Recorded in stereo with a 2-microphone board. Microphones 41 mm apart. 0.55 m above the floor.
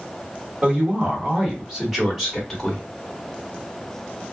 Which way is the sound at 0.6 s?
35° right (ahead or behind).